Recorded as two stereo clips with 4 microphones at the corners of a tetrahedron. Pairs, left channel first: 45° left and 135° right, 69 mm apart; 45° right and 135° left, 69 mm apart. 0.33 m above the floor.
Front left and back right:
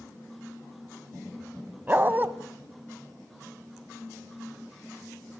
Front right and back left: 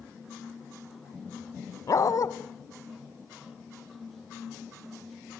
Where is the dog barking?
75° right, 0.9 m.